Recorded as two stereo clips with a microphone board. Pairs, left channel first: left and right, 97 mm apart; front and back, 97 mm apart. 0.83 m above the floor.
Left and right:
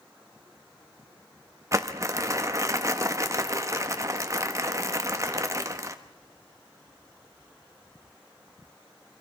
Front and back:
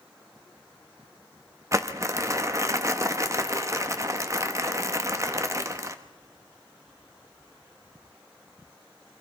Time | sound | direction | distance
1.7 | crumpling | 135° right | 1.3 m